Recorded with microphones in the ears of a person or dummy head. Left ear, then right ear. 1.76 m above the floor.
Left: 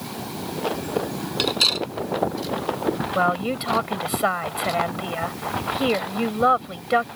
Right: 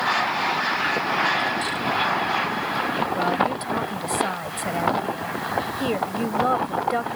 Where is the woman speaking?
20° left (ahead or behind).